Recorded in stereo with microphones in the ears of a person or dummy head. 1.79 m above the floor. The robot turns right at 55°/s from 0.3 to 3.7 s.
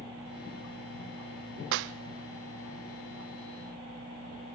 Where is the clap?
60° right (ahead or behind), 0.6 m.